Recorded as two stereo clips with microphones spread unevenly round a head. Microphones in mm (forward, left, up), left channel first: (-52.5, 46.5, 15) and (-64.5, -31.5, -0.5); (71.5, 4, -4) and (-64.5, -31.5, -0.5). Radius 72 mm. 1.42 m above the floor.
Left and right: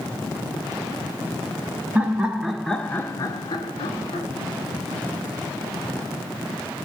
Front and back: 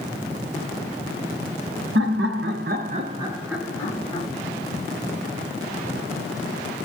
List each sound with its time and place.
1.9 s laughter: 170° right, 1.1 m; by 4.3 s 80° left, 1.0 m